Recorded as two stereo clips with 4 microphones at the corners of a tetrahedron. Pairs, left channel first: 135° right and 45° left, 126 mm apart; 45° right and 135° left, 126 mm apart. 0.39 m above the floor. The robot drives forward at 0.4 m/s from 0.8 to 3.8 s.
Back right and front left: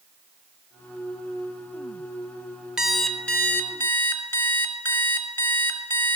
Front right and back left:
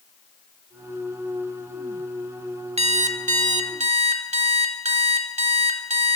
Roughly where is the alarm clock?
Behind left.